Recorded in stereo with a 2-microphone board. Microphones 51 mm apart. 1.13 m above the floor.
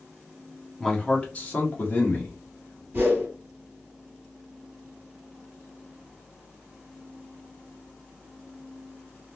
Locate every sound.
0.8 s a man speaking: 10° left (ahead or behind), 0.7 m; by 2.8 s 45° left (ahead or behind), 1.5 m
2.9 s a whoosh: 40° right (ahead or behind), 1.5 m